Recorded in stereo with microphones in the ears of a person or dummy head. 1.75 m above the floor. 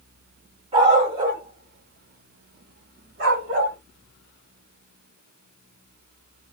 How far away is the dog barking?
About 2.5 m.